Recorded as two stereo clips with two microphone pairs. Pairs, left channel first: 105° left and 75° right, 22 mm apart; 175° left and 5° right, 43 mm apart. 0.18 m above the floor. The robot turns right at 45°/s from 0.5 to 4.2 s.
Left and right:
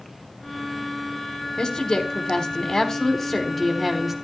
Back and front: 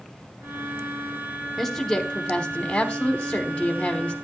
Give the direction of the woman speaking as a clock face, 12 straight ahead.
9 o'clock.